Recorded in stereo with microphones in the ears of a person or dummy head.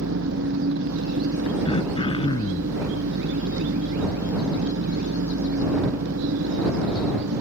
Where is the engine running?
75° right (ahead or behind).